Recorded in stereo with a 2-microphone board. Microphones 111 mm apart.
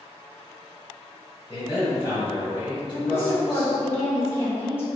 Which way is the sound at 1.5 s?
45° left (ahead or behind).